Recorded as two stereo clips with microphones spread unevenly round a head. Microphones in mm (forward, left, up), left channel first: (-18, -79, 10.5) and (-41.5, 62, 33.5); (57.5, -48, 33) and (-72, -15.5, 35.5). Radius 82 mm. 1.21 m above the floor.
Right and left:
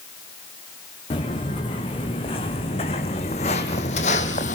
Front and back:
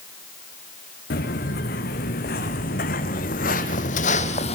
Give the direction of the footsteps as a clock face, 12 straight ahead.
1 o'clock.